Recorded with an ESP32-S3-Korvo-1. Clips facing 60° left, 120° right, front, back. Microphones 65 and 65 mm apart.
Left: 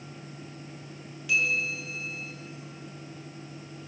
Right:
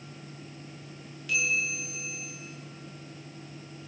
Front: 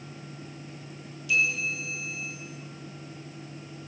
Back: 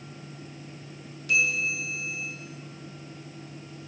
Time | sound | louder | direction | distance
1.3 | a bell | left 2 dB, back 1 dB | 145° left | 6.5 m